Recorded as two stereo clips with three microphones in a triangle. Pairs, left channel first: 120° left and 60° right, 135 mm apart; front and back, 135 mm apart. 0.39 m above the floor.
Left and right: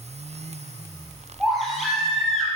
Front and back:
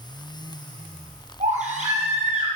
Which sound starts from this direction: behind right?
A baby crying, at 1.4 s.